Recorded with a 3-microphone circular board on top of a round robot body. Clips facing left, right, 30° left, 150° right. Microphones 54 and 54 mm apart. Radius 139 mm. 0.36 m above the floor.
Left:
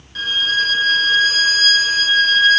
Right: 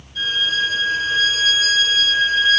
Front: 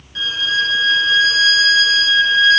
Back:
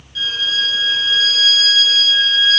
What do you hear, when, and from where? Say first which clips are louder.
0.1 s a violin: left 2 dB, front 2 dB; 80° left, 5 m